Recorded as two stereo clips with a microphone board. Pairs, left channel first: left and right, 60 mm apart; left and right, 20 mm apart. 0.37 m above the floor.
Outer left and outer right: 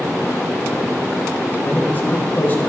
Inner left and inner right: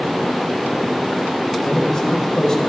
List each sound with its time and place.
1.6 s a man speaking: 30° left (ahead or behind), 1.5 m